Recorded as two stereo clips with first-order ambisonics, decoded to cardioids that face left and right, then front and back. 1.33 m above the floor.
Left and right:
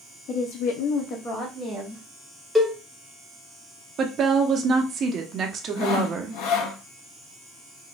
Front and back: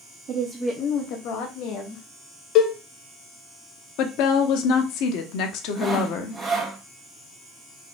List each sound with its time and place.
0.3 s a woman speaking: 120° left, 0.8 m; by 2.0 s 5° left, 1.8 m
2.5 s a cowbell: 5° right, 0.7 m
4.0 s a woman speaking: 30° right, 0.8 m
5.8 s sawing: 105° left, 0.9 m